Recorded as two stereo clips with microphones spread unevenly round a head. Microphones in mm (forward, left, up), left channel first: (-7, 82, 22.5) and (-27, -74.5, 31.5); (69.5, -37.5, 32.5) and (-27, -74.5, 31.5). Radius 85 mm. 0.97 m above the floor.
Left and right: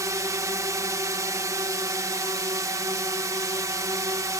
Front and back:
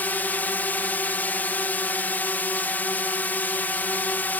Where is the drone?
40° right.